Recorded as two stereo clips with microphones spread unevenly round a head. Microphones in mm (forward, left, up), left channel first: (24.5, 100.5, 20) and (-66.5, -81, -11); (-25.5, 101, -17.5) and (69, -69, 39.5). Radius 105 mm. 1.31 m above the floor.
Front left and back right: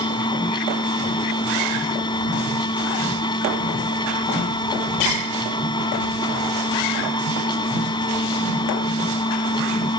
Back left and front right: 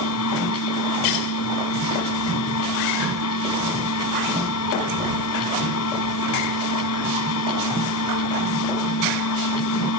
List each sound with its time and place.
0.0 s a machine running: 130° left